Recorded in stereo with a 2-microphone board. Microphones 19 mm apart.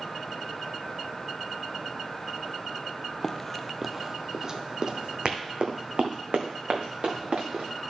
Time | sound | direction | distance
3.2 | running footsteps | 25° left (ahead or behind) | 0.6 m